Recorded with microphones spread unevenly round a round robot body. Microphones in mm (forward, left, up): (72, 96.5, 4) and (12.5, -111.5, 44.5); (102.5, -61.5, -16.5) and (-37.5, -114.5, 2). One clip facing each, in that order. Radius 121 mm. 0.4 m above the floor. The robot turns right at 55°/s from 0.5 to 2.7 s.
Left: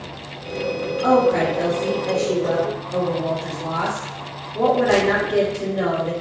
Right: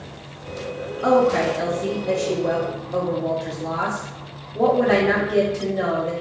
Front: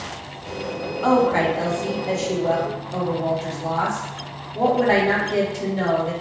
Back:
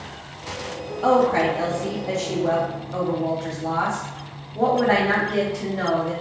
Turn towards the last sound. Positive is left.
turn(degrees=5)